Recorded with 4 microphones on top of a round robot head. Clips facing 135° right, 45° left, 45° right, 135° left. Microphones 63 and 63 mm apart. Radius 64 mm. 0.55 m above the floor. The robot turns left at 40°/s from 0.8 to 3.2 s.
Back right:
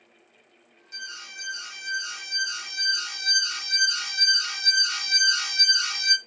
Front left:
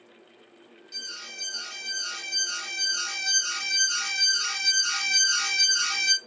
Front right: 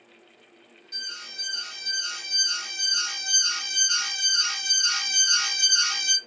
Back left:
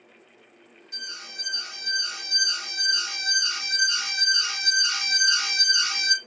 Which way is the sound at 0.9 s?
170° right.